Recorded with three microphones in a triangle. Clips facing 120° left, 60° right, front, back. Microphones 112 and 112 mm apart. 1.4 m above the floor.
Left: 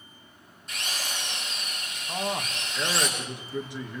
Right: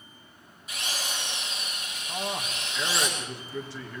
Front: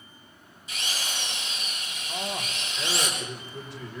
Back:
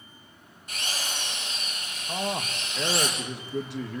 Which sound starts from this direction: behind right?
A drill, at 0.7 s.